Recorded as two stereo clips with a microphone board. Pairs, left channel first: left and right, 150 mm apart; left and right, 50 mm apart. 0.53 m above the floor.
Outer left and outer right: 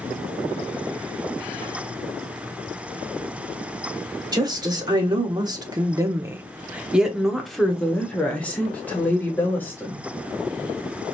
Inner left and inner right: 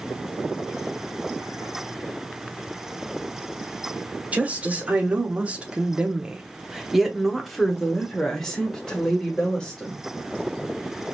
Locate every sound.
4.3 s a woman speaking: 30° right (ahead or behind), 1.2 m; by 10.0 s 15° left (ahead or behind), 2 m